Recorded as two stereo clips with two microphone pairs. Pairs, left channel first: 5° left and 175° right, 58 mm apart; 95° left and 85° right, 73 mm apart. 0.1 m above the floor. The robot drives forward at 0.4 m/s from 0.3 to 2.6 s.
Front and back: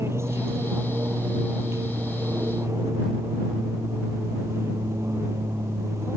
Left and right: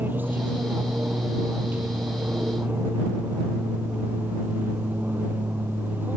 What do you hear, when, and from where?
0.0 s an aircraft: 145° right